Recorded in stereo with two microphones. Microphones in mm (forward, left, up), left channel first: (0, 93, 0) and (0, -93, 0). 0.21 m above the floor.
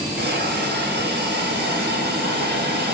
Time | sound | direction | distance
0.2 | a hiss | 65° right (ahead or behind) | 1.3 m